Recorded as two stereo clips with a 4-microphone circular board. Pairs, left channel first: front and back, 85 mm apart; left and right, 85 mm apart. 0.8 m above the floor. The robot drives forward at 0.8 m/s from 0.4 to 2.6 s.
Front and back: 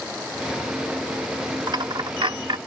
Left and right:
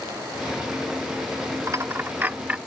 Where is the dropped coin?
140° right; by 2.6 s 165° right.